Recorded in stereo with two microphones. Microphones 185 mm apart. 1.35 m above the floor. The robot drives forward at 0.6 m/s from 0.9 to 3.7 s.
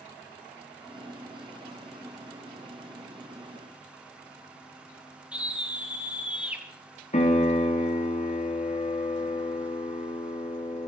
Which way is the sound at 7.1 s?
40° left (ahead or behind).